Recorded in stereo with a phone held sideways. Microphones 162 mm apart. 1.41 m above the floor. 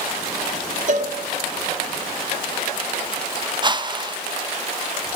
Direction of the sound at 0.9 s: 50° right (ahead or behind).